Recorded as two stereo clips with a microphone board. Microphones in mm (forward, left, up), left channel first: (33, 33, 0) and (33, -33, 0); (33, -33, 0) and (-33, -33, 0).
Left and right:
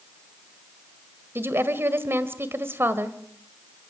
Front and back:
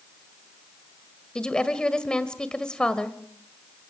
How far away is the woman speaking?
About 1.8 m.